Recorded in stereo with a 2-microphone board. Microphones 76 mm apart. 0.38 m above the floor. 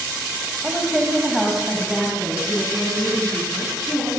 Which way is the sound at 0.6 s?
20° right (ahead or behind).